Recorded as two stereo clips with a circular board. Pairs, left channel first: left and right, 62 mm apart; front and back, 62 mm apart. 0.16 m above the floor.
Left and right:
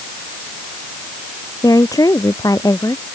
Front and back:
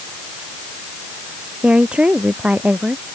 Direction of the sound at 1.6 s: 105° left.